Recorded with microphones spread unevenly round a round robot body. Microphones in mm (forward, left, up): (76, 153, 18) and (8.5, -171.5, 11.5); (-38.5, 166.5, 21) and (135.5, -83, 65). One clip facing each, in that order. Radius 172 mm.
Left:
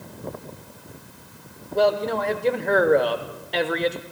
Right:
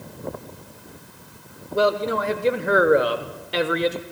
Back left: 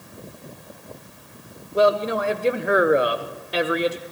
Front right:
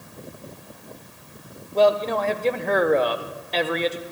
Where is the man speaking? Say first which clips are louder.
Even, even; 175° right, 1.0 m.